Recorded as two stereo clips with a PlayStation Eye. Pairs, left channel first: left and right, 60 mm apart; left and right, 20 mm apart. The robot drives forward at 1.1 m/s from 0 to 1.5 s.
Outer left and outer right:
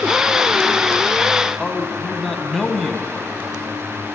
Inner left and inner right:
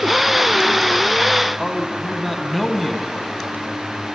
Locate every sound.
1.6 s a man speaking: 5° left (ahead or behind), 1.0 m